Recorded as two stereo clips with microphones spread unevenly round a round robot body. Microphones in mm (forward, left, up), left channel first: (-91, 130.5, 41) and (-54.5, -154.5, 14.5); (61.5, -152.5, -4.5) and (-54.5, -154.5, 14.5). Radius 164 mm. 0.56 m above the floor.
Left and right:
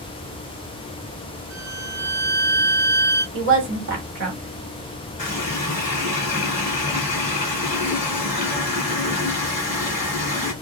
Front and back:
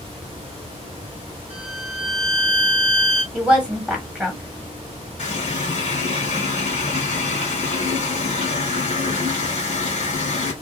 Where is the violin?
10° left, 0.8 m.